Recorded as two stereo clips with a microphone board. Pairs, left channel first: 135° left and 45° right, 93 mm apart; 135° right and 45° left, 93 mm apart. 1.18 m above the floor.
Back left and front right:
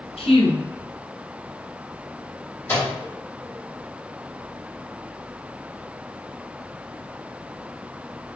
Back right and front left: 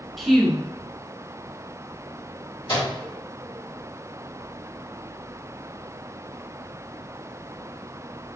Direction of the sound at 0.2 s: 140° left.